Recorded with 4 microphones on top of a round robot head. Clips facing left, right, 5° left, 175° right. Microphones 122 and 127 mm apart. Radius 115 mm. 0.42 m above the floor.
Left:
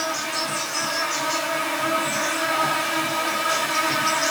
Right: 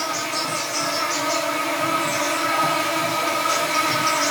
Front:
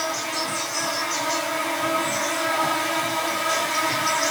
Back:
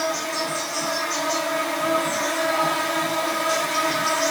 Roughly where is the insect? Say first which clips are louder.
Right 1 dB, back 2 dB; right.